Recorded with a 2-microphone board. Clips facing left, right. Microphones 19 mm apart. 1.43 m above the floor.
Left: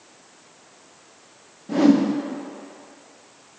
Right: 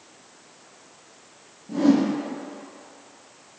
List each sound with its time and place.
1.7 s a whoosh: 75° left (ahead or behind), 0.9 m